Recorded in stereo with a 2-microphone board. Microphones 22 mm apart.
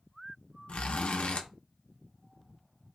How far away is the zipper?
About 0.5 m.